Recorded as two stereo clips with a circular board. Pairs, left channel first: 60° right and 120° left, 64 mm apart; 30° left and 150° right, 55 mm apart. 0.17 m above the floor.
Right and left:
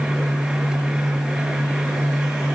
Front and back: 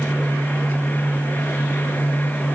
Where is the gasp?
No gasp in this recording.